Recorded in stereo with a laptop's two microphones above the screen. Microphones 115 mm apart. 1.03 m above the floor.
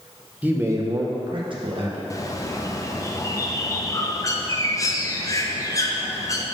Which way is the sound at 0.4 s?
10° right (ahead or behind).